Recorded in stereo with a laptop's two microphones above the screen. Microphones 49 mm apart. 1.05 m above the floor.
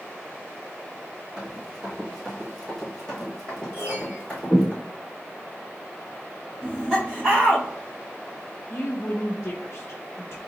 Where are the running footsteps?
15° right (ahead or behind), 1.8 m; by 4.7 s 25° left (ahead or behind), 2.5 m.